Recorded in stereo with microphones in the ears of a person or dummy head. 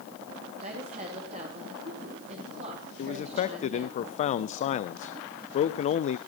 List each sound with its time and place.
0.6 s a woman speaking: 45° right (ahead or behind), 3 m
3.0 s a man speaking: 45° left (ahead or behind), 0.5 m